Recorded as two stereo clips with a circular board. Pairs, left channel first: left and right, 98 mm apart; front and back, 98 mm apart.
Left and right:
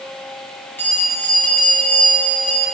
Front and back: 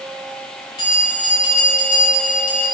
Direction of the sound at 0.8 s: 20° left.